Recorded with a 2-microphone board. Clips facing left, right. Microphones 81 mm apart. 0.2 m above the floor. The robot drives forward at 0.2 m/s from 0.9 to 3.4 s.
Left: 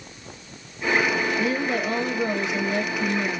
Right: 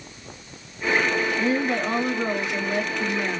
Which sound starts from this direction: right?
A woman speaking, at 1.4 s.